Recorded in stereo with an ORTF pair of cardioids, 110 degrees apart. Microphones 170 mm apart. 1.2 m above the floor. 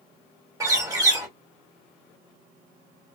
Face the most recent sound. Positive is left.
turn(degrees=-20)